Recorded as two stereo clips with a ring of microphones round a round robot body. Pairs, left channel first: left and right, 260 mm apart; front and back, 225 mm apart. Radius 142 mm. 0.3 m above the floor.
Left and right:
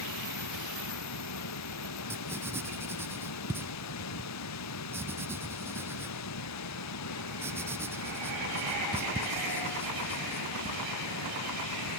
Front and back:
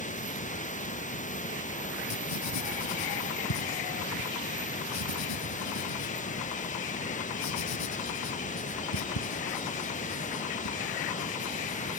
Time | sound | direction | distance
0.0 | running water | 60° left | ?
2.1 | writing | 10° right | ?